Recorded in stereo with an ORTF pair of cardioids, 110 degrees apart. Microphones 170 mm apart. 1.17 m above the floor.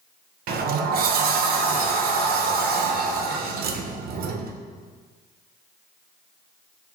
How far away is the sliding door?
About 0.5 m.